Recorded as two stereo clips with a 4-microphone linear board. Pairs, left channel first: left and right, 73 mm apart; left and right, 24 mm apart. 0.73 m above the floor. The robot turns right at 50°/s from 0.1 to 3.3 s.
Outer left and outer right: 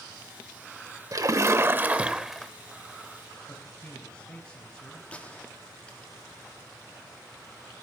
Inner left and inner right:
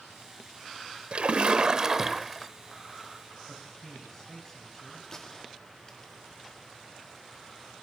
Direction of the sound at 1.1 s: 65° right.